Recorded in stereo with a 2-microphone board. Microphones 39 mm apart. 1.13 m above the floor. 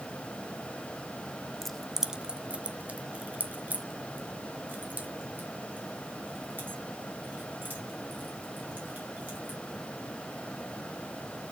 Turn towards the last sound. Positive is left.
turn(degrees=-60)  # may be behind; listen again after turning